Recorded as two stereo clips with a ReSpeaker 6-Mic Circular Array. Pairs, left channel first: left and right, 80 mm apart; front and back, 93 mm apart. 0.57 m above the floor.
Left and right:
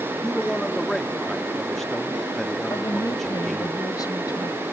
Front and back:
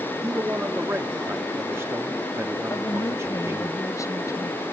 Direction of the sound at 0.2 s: 170° left.